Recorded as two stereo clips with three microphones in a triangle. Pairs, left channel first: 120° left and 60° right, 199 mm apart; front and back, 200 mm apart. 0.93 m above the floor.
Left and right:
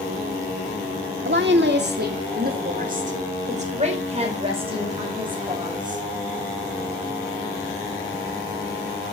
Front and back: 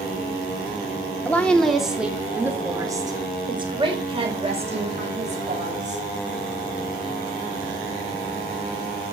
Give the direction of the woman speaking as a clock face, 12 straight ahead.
3 o'clock.